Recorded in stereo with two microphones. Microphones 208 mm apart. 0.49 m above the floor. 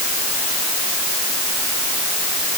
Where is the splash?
I don't hear a splash.